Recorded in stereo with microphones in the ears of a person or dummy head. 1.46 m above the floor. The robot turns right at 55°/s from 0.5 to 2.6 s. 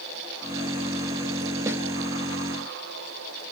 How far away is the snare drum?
About 1.0 m.